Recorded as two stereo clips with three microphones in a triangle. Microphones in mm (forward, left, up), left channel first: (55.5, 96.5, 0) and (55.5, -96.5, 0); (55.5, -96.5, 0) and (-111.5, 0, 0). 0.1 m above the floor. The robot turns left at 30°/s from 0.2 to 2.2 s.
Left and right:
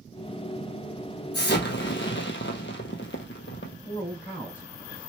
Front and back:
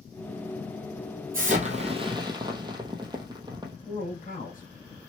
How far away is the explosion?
About 0.6 m.